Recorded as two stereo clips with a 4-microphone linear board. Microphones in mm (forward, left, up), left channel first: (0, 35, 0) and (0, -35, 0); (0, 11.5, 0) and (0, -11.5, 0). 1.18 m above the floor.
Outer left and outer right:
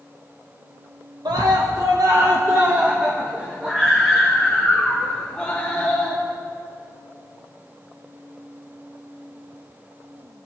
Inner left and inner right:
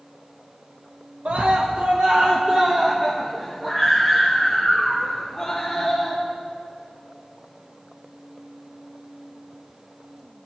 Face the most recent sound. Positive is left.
turn(degrees=5)  # may be behind; listen again after turning